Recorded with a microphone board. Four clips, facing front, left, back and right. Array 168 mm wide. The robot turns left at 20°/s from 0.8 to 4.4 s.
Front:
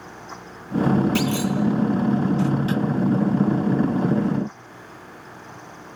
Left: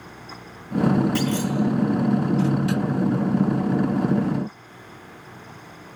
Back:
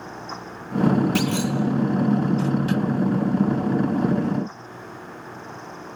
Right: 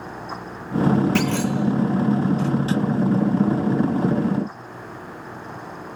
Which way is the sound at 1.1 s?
90° right.